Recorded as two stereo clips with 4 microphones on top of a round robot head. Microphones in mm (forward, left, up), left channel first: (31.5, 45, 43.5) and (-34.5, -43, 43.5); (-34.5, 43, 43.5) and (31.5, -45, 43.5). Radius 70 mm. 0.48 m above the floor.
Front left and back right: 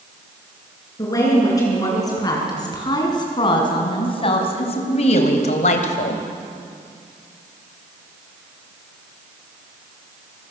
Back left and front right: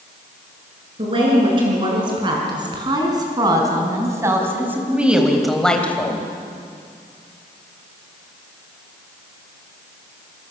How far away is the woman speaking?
About 7.5 m.